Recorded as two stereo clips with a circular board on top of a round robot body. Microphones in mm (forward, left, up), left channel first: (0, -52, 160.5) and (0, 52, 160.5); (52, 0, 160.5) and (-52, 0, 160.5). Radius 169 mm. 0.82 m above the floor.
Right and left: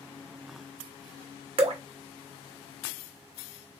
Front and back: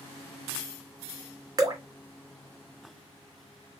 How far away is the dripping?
About 1.1 m.